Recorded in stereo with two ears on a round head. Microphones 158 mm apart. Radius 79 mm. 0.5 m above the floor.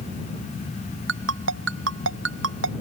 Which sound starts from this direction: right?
A ringtone, at 1.1 s.